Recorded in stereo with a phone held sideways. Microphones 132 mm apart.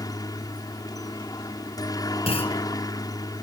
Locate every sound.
0.0 s a helicopter: 30° left (ahead or behind)
2.3 s a clunk: 50° left (ahead or behind)